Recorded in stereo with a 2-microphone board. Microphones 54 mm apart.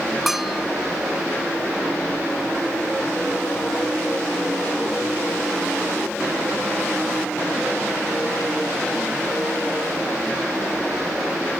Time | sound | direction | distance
0.3 | a bell | 5° right (ahead or behind) | ?